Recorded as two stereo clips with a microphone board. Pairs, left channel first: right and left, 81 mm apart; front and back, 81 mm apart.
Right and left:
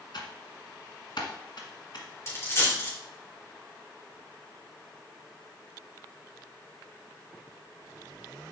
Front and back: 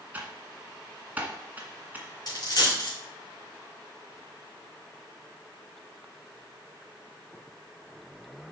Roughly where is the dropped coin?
Ahead right.